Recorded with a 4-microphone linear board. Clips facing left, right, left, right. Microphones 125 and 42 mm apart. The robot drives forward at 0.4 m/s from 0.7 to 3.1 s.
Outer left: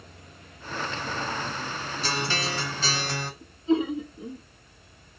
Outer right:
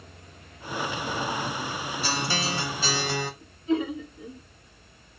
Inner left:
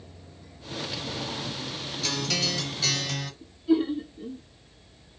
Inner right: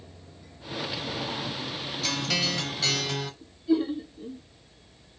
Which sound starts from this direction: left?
Laughter, at 3.4 s.